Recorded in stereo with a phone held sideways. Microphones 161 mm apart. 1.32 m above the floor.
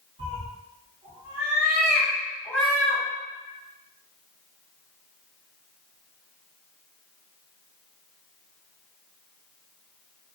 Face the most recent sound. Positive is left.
turn(degrees=15)  # may be behind; listen again after turning